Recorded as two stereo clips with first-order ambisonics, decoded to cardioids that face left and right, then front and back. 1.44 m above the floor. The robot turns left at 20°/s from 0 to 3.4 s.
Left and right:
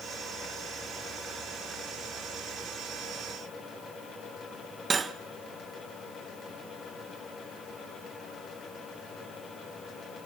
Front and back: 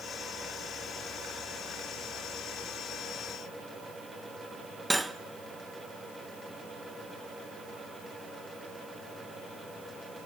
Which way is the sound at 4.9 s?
100° right.